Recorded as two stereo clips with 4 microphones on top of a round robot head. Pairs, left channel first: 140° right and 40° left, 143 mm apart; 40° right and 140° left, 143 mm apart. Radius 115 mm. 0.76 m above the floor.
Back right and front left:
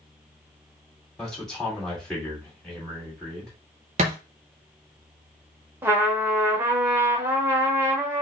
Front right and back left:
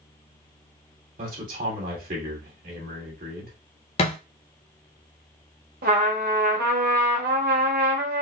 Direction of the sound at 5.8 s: 120° left.